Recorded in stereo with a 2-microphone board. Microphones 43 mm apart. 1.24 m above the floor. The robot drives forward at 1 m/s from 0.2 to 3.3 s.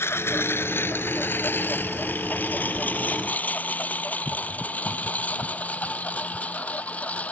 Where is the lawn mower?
65° left (ahead or behind); by 7.3 s 30° left (ahead or behind).